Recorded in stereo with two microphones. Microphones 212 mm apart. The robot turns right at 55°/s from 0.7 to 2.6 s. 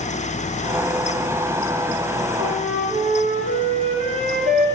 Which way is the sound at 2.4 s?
20° right (ahead or behind).